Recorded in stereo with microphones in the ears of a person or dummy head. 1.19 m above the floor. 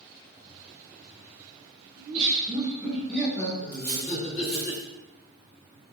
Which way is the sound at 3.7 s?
5° left (ahead or behind).